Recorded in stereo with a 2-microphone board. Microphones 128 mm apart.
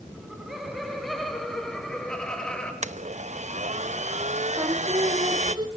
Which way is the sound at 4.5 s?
35° right (ahead or behind).